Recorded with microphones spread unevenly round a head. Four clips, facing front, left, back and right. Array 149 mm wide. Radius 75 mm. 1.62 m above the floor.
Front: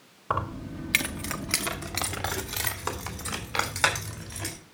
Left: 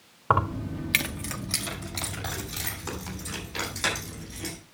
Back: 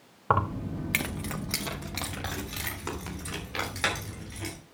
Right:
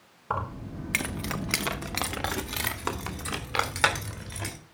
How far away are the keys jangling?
About 1.1 m.